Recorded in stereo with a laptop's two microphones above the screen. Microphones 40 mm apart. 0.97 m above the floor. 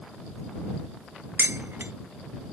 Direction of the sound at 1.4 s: 65° right (ahead or behind).